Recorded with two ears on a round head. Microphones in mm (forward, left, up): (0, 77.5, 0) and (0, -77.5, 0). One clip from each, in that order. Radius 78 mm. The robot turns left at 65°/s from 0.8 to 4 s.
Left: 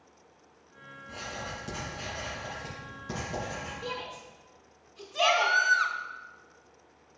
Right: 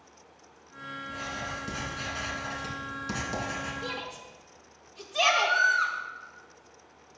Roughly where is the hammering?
No hammering in this recording.